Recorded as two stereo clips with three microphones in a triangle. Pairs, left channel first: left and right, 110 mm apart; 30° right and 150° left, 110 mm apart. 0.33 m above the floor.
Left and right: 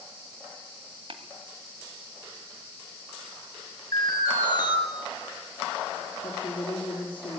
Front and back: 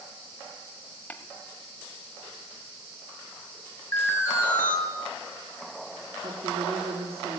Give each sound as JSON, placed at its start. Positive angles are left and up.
{"t": 1.1, "sound": "tapping", "azimuth_deg": -100, "distance_m": 1.5}
{"t": 3.9, "sound": "an alarm", "azimuth_deg": 35, "distance_m": 6.5}
{"t": 6.2, "sound": "a woman speaking", "azimuth_deg": 130, "distance_m": 4.5}